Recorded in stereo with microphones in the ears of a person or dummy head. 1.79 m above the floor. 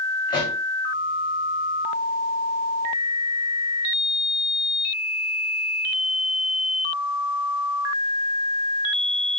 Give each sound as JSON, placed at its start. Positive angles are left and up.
{"t": 0.3, "sound": "a pop", "side_deg": 20, "distance_m": 7.5}